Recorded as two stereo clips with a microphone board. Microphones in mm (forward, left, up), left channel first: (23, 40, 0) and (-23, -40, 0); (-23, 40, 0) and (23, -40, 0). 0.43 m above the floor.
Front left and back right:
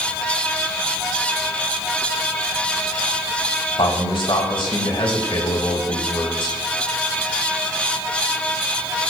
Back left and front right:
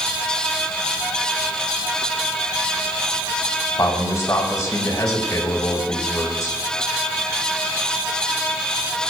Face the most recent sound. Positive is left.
turn(degrees=70)